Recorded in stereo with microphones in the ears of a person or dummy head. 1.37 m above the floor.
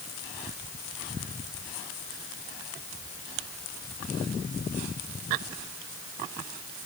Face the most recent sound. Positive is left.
No sound to turn to.